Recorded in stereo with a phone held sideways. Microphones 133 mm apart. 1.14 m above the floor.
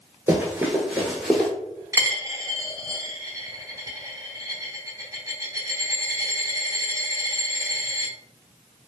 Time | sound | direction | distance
0.3 | running footsteps | 20° right (ahead or behind) | 1.1 m
1.9 | a dropped coin | 25° right (ahead or behind) | 0.8 m